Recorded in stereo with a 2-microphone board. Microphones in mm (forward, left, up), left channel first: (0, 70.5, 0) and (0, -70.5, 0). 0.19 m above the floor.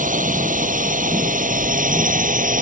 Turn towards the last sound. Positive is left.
turn(degrees=-70)  # may be behind; listen again after turning